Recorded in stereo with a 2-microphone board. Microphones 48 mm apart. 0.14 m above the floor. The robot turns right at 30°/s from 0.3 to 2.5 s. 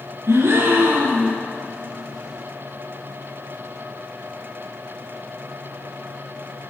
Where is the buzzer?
No buzzer in this recording.